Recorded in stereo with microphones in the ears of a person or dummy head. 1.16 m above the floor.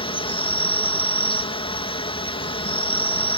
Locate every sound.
0.0 s an insect: 25° left (ahead or behind)